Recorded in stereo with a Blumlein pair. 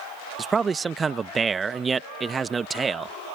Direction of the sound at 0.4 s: 15° right.